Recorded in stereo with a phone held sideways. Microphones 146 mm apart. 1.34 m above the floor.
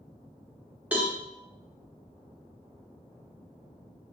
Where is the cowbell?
10° right (ahead or behind), 0.8 m.